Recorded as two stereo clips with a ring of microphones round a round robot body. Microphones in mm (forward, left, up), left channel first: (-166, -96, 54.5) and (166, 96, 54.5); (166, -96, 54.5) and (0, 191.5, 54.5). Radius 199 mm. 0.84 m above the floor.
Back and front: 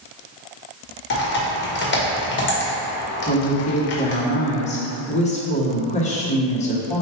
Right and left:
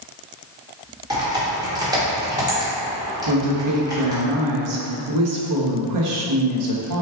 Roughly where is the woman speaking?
Behind left.